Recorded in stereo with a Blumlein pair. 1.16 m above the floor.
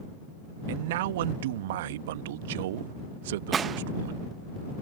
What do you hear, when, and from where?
0.7 s a man speaking: 55° right
3.5 s a gunshot: 20° right